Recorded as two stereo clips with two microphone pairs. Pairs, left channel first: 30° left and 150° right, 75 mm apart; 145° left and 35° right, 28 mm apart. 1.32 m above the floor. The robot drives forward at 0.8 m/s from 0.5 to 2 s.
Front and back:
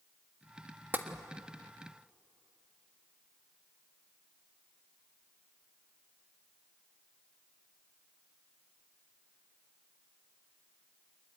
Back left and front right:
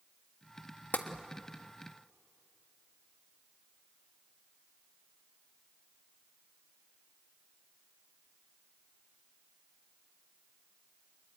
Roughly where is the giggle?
I don't hear a giggle.